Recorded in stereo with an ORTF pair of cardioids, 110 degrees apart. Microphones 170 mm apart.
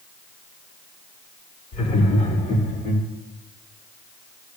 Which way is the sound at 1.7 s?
40° left.